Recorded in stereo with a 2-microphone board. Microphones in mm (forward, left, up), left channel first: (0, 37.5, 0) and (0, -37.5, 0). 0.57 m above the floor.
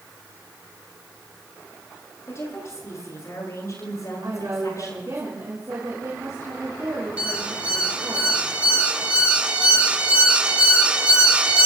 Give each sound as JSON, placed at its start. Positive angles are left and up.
{"t": 2.3, "sound": "a woman speaking", "side_deg": 40, "distance_m": 9.0}
{"t": 4.2, "sound": "a woman speaking", "side_deg": -50, "distance_m": 7.0}
{"t": 7.2, "sound": "an alarm", "side_deg": -15, "distance_m": 2.5}